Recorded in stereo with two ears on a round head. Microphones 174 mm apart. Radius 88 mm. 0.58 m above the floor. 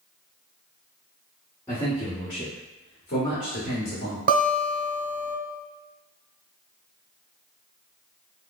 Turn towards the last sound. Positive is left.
turn(degrees=-50)  # may be behind; listen again after turning